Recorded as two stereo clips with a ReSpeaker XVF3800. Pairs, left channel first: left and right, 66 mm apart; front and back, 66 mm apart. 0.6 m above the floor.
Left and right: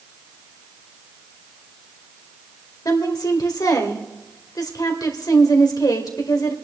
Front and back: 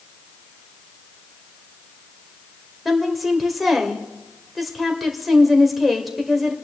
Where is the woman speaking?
90° left, 2 m.